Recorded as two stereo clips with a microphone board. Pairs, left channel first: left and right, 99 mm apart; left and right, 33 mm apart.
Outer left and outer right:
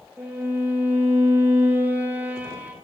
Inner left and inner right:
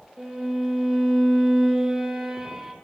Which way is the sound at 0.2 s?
15° right (ahead or behind).